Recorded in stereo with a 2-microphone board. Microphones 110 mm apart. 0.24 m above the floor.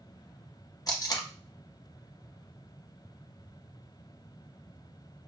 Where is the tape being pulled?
35° left (ahead or behind), 0.6 m.